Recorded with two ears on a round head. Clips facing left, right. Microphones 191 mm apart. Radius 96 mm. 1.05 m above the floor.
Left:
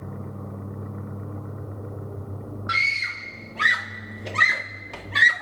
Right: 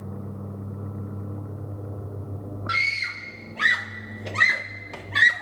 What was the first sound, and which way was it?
A scream, centre (ahead or behind).